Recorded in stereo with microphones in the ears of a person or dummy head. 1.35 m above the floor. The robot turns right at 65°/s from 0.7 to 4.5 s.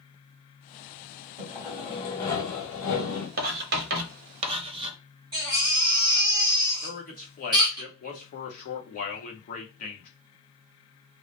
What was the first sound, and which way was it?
Sawing, 30° right.